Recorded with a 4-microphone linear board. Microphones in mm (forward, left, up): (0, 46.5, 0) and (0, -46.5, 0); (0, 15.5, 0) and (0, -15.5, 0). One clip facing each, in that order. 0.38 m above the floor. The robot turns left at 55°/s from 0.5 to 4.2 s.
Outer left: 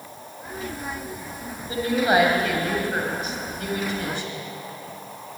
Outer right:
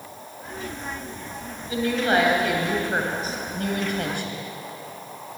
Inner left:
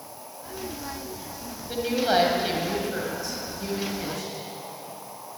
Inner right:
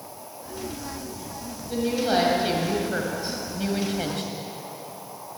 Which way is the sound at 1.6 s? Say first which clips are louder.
Outer left 1 dB, inner right 1 dB; 45° left.